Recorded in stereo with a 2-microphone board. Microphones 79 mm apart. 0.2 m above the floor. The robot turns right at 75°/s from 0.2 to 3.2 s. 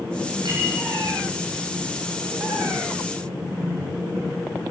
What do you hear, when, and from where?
0.5 s a clink: 70° right (ahead or behind), 7 m; by 0.7 s 50° right (ahead or behind), 7 m